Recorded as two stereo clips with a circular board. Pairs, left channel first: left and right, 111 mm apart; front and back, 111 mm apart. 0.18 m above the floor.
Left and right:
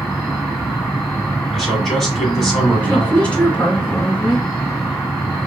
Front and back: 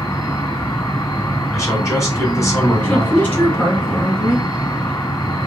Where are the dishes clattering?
I don't hear dishes clattering.